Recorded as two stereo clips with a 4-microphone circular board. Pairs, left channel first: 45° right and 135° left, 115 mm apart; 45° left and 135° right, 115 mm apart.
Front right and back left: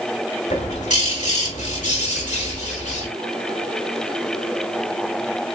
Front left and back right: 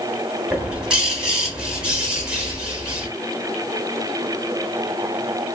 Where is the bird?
50° right, 0.9 m.